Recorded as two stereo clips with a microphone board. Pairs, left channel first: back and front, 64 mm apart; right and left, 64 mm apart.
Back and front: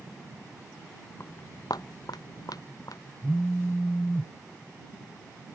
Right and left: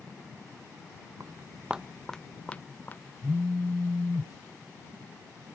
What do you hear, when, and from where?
1.2 s footsteps: 130° left; by 3.1 s 150° right
3.2 s a phone buzzing: 95° left